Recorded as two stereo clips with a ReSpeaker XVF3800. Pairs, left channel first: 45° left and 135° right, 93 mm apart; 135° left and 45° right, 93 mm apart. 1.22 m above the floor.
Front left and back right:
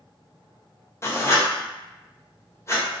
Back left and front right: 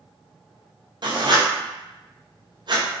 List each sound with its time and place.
1.0 s writing: 15° right, 0.5 m